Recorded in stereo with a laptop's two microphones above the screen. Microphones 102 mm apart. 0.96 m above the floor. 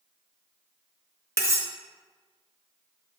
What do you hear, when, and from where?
1.4 s cutlery clinking: 30° right (ahead or behind), 0.8 m